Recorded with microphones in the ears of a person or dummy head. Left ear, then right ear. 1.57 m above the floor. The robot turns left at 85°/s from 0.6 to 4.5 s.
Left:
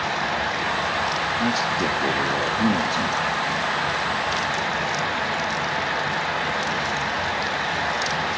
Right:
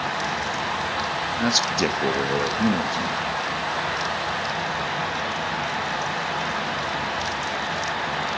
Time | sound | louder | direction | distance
1.4 | a man speaking | right 1 dB | 55° right | 0.8 m